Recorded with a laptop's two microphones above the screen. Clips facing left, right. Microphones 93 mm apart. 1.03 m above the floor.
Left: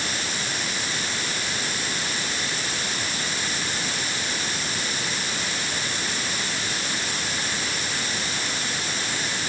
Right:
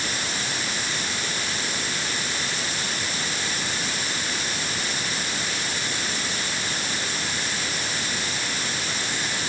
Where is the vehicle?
I don't hear a vehicle.